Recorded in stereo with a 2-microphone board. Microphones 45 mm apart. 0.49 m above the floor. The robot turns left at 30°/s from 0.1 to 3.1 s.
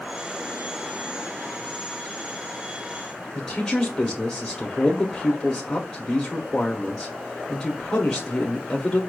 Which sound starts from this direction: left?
A man speaking, at 3.4 s.